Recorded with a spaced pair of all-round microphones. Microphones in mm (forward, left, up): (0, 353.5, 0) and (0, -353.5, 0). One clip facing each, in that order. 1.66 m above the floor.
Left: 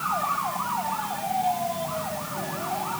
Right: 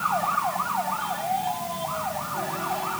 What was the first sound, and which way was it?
Only background noise.